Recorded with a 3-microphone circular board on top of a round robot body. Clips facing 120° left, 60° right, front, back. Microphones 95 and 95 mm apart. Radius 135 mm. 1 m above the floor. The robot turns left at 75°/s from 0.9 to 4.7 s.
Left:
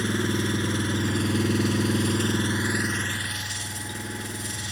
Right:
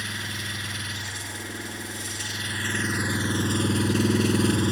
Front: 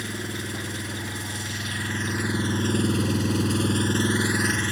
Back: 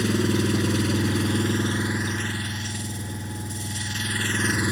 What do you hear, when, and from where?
0.0 s an engine running: straight behind; by 4.7 s 105° right